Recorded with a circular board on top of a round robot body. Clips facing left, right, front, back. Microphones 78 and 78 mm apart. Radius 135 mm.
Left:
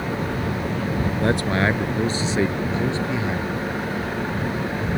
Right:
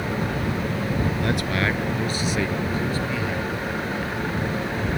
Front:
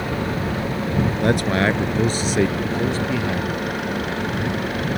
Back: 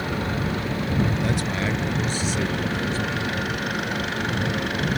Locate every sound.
1.2 s a man speaking: 35° left; by 3.6 s 25° left